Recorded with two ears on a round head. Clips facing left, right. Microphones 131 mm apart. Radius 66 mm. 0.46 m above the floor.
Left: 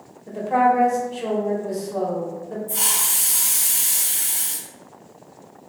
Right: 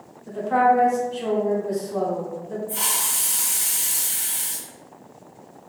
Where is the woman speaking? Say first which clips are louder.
Even; 5° left (ahead or behind), 0.9 m.